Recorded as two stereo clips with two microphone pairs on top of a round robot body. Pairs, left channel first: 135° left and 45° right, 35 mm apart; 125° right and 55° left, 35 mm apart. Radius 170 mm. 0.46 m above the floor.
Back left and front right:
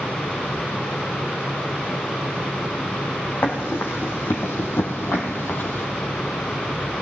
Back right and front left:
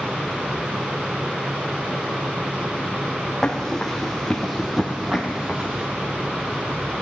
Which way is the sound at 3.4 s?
155° left.